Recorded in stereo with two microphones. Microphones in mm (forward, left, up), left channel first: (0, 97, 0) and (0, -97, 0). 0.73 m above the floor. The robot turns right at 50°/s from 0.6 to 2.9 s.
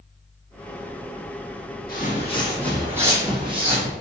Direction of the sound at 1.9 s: 50° left (ahead or behind).